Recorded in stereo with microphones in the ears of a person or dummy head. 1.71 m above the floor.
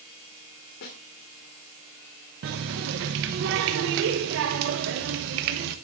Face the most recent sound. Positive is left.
turn(degrees=-45)  # may be behind; listen again after turning